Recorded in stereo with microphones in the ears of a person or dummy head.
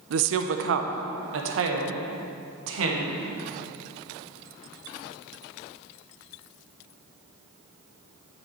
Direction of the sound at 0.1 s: 75° right (ahead or behind).